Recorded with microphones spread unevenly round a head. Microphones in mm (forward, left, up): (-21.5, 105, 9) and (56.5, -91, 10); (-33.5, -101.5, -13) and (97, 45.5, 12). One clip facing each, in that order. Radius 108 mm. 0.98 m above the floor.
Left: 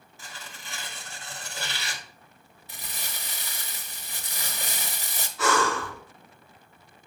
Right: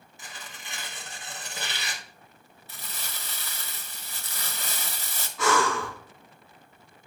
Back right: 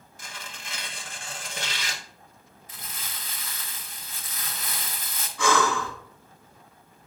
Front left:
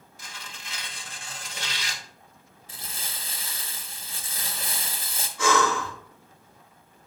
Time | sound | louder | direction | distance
0.2 | tearing paper | even, back right 2 dB | 140° right | 1.0 m
2.7 | crumpling | left 1 dB, front left 1 dB | 70° left | 0.8 m
5.4 | breathing | even, even | 100° right | 4 m